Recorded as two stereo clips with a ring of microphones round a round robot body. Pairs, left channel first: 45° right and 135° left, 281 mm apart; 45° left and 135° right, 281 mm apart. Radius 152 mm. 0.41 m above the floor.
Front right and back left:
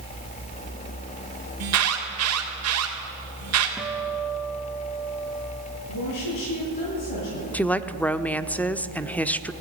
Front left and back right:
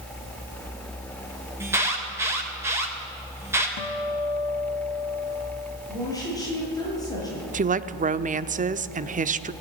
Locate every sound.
1.6 s an alarm: 145° left, 3.5 m
3.8 s a guitar: 50° left, 1.0 m
5.9 s a woman speaking: 35° right, 9 m
7.5 s a woman speaking: 125° right, 0.8 m